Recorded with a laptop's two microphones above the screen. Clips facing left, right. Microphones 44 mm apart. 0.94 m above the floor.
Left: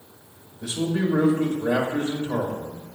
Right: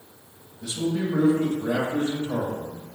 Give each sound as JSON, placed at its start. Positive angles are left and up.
{"t": 0.6, "sound": "a man speaking", "side_deg": 30, "distance_m": 0.7}